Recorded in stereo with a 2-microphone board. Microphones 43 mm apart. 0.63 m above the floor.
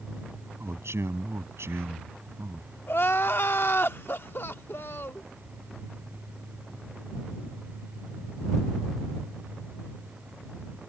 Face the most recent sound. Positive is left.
turn(degrees=60)  # may be behind; listen again after turning